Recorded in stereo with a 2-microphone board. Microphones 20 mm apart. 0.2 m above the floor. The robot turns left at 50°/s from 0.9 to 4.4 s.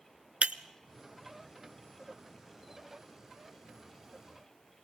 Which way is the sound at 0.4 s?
65° right (ahead or behind).